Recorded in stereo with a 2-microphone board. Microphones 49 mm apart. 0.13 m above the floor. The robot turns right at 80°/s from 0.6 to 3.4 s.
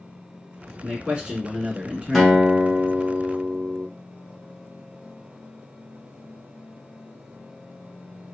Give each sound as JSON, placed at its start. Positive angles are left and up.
{"t": 0.8, "sound": "a man speaking", "side_deg": -15, "distance_m": 1.0}
{"t": 2.1, "sound": "a guitar", "azimuth_deg": 175, "distance_m": 0.9}